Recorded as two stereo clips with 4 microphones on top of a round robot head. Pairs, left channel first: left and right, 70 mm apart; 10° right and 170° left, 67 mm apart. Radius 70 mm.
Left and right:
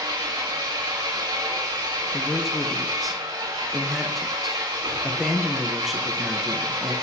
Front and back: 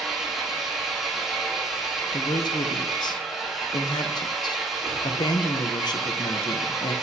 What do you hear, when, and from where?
0.0 s an engine running: 105° right, 3 m
2.1 s a man speaking: straight ahead, 0.9 m